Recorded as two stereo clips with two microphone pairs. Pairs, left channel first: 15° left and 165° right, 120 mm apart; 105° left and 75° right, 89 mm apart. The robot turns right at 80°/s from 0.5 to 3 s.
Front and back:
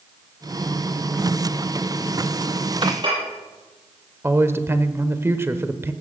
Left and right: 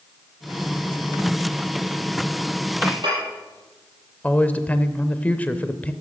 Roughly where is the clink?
Behind right.